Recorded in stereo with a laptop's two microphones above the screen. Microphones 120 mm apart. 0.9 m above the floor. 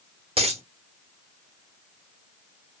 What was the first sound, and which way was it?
A dropped coin, 60° right (ahead or behind).